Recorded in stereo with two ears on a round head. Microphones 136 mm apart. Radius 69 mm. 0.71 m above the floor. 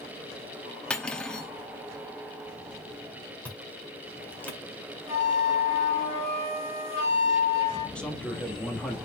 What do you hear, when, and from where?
0.9 s cutlery clinking: 5° left (ahead or behind), 0.5 m
3.5 s chewing: 10° left (ahead or behind), 1.5 m
5.1 s a flute: 50° left (ahead or behind), 3.5 m
8.0 s a man speaking: 5° left (ahead or behind), 1.4 m